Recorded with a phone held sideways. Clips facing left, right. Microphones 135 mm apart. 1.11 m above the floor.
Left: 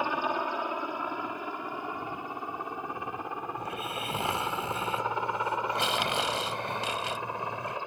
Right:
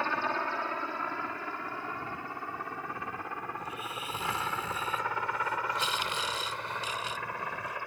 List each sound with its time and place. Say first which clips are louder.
0.0 s a helicopter: left 2 dB; 15° left (ahead or behind); by 7.9 s 20° left (ahead or behind)
3.6 s snoring: left 4 dB; 75° left (ahead or behind)